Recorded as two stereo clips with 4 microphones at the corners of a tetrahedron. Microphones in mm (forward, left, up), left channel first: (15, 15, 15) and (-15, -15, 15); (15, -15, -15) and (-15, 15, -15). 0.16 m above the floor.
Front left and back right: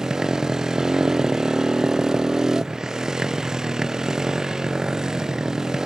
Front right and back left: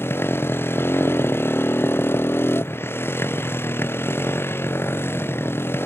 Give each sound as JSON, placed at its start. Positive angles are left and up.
{"t": 0.0, "sound": "a motorcycle", "azimuth_deg": -60}